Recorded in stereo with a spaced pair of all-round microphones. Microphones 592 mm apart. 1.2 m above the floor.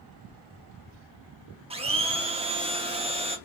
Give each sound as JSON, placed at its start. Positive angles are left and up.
{"t": 1.7, "sound": "a blender", "side_deg": -10, "distance_m": 0.6}